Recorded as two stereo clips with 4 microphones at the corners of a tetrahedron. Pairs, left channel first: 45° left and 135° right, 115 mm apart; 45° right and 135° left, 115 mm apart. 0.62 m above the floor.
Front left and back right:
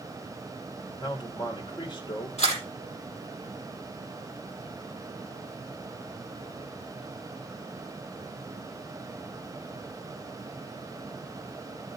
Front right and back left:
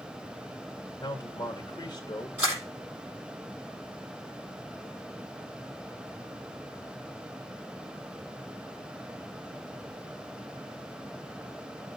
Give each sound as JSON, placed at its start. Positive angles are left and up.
{"t": 1.0, "sound": "a man speaking", "azimuth_deg": 5, "distance_m": 1.8}
{"t": 2.4, "sound": "a camera shutter", "azimuth_deg": 65, "distance_m": 7.5}